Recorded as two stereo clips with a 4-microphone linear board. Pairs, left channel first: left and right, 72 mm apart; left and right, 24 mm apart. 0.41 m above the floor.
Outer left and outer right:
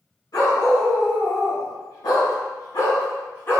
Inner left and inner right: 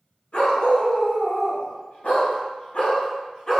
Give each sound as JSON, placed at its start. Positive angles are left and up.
{"t": 0.3, "sound": "a dog barking", "side_deg": 60, "distance_m": 1.8}